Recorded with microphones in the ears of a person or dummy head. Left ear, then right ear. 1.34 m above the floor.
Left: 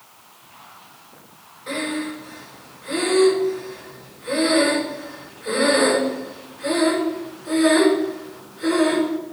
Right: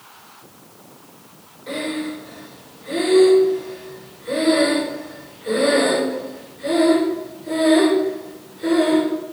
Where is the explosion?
I don't hear an explosion.